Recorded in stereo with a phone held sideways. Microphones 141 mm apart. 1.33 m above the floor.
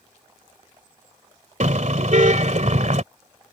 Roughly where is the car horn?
Right.